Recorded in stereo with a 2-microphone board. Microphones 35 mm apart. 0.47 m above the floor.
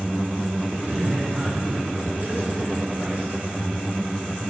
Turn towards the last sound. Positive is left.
turn(degrees=-50)  # may be behind; listen again after turning